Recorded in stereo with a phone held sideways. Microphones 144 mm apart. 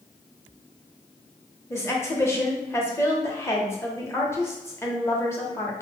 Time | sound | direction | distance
1.7 | a woman speaking | 20° left (ahead or behind) | 0.8 m